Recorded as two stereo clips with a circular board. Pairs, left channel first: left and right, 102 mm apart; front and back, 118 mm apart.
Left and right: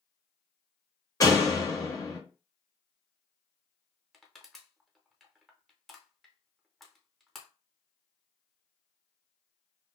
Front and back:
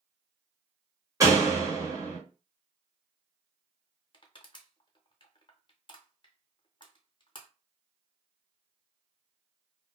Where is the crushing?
Straight ahead, 0.7 m.